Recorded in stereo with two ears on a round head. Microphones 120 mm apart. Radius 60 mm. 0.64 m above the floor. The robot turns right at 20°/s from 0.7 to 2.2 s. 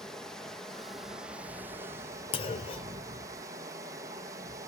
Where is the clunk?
40° left (ahead or behind), 0.9 m.